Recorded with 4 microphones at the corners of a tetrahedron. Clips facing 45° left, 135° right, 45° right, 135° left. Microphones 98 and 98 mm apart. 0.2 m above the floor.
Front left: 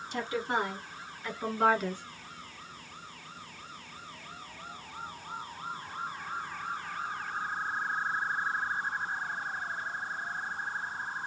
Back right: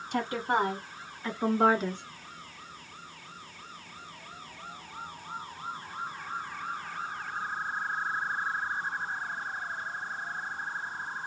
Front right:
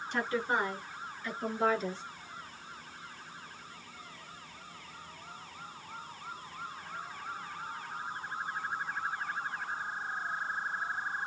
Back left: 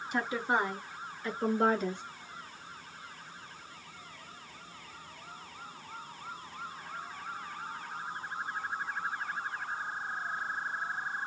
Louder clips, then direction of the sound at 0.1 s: Back right 3 dB, back left 1 dB; 145° right.